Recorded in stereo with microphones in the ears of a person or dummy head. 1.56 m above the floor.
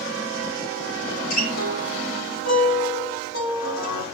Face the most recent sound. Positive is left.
turn(degrees=80)